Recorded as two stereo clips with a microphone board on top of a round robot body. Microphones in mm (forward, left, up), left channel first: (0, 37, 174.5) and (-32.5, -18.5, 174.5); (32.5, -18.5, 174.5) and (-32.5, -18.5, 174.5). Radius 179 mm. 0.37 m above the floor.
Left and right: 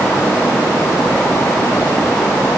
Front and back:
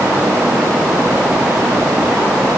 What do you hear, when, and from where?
Only background noise.